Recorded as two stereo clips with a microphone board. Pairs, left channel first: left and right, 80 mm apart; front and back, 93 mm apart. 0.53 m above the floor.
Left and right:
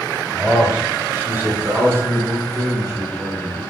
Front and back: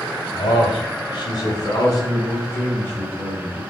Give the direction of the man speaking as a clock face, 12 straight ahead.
1 o'clock.